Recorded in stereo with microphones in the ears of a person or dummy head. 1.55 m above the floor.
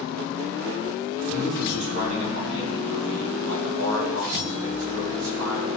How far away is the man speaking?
About 1.4 m.